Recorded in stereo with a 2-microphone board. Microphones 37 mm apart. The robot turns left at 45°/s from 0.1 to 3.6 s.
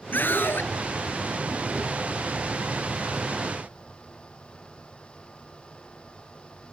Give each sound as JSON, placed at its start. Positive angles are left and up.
{"t": 0.1, "sound": "a scream", "side_deg": 60}